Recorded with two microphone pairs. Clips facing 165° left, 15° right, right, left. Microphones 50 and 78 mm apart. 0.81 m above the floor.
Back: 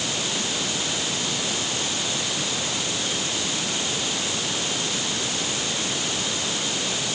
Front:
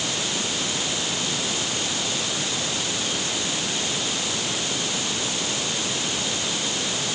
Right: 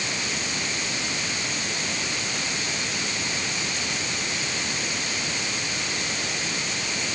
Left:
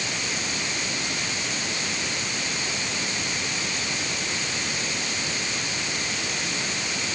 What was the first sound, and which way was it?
Only background noise.